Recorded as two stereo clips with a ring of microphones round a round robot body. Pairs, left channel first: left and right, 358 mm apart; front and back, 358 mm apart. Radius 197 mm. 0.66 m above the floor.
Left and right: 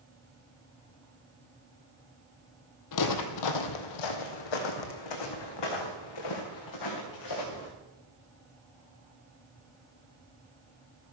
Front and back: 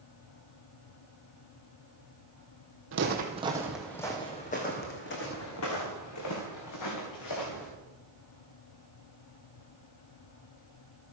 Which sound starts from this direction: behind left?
Footsteps, at 2.9 s.